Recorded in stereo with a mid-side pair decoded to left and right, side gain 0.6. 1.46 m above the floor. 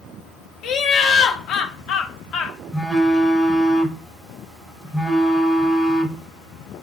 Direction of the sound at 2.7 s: 10° left.